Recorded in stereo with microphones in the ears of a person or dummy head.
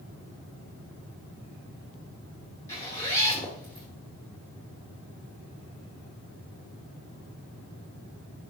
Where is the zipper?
20° left (ahead or behind), 0.9 m.